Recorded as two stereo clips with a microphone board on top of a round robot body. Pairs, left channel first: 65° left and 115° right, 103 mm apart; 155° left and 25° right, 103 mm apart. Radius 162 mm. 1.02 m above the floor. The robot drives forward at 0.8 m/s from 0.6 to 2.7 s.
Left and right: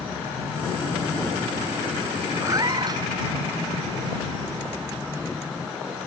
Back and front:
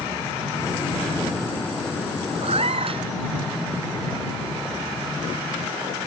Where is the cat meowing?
50° right; by 3.0 s 55° right.